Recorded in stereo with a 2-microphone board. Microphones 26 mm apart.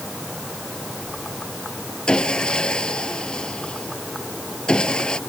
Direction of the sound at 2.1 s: 35° left (ahead or behind).